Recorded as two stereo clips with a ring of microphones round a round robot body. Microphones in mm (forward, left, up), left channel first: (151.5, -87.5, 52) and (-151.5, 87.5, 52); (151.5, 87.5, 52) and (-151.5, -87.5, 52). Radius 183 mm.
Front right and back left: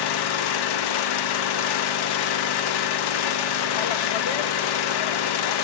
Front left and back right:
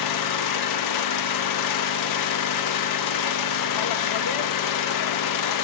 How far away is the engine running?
About 0.7 m.